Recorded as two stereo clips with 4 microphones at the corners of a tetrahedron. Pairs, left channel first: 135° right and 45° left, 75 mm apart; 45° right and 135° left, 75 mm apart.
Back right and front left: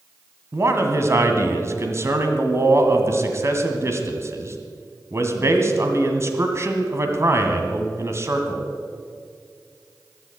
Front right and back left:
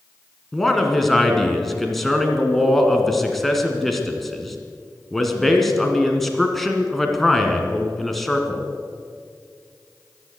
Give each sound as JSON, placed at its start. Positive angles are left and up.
{"t": 0.5, "sound": "a man speaking", "azimuth_deg": 40, "distance_m": 1.9}